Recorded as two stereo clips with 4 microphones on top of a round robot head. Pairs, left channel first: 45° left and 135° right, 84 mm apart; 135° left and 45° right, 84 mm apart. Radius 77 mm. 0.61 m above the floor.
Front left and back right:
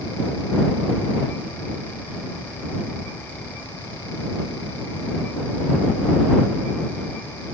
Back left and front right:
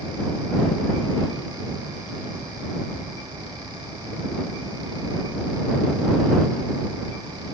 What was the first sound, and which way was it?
Only background noise.